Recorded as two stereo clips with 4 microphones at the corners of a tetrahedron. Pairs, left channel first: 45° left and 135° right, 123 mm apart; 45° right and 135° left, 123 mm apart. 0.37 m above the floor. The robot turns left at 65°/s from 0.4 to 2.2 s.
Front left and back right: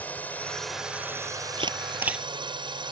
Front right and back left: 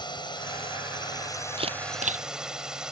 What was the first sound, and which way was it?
A drone, 25° right.